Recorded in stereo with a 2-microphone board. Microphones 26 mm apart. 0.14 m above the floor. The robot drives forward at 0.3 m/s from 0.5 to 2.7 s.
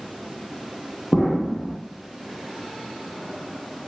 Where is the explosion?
35° left (ahead or behind), 0.6 m; by 1.8 s 25° left (ahead or behind), 0.7 m.